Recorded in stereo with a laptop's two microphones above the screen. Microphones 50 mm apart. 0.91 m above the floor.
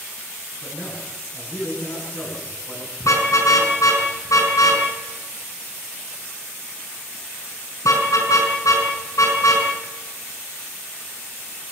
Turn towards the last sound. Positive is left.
turn(degrees=80)